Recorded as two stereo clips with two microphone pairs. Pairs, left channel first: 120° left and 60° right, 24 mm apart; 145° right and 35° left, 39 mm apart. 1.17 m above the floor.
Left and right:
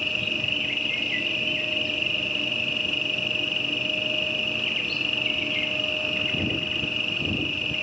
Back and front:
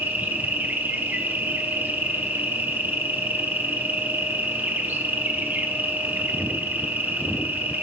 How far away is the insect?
About 1.6 m.